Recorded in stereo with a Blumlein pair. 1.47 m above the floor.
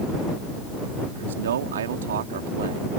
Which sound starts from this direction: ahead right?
A man speaking, at 1.1 s.